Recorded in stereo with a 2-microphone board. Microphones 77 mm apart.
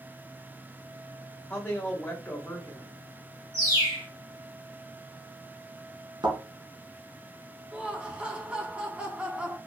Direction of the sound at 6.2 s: 65° right (ahead or behind).